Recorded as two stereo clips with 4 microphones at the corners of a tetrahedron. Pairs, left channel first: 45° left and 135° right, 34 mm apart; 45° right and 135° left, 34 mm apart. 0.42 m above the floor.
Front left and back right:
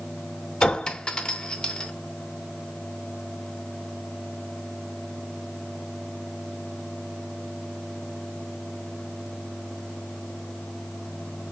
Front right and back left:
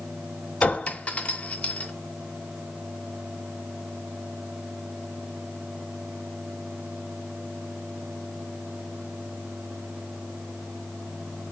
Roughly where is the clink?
Ahead.